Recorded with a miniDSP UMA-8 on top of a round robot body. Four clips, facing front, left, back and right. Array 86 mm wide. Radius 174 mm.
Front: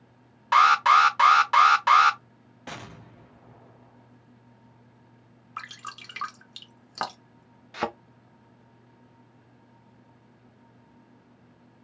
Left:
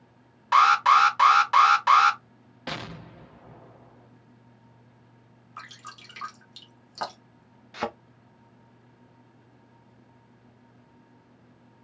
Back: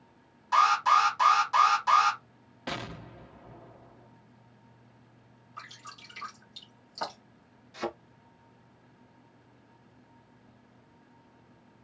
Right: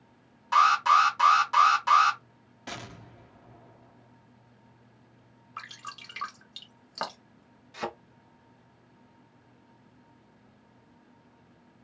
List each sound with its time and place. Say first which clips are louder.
0.5 s an alarm: left 3 dB, front 5 dB; 30° left, 1.8 m
2.7 s an explosion: left 5 dB, back 4 dB; 115° left, 1.1 m
5.6 s dripping: right 1 dB, front 7 dB; 10° right, 1.3 m
7.7 s a thud: left 4 dB, front 5 dB; 30° left, 0.6 m